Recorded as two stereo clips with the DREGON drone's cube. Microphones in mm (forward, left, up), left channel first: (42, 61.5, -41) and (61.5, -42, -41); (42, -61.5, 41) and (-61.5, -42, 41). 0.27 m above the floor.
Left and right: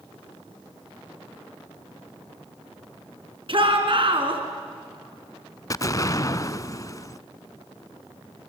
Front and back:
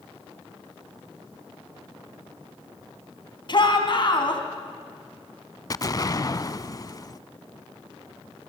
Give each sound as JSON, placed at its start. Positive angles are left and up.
{"t": 3.5, "sound": "a shout", "azimuth_deg": -50, "distance_m": 3.5}
{"t": 5.7, "sound": "an explosion", "azimuth_deg": 40, "distance_m": 0.5}